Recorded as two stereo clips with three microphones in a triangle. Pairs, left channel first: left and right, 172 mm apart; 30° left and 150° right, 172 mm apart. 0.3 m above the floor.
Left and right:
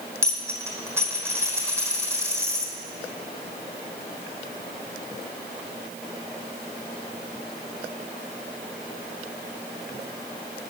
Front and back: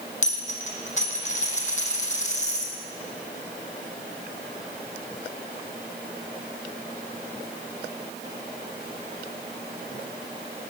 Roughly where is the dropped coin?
Ahead.